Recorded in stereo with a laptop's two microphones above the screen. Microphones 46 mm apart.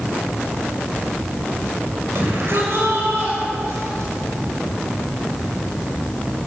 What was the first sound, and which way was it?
A shout, 60° right (ahead or behind).